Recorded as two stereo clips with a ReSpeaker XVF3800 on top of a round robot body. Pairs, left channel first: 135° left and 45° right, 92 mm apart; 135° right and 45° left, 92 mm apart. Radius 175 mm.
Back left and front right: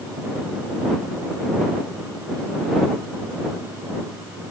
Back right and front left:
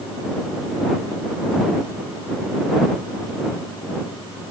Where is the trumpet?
I don't hear a trumpet.